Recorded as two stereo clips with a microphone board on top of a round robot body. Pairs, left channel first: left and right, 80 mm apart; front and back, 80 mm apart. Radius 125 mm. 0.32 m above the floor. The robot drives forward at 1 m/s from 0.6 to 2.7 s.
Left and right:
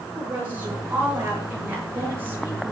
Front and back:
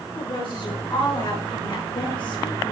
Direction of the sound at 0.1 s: 20° right.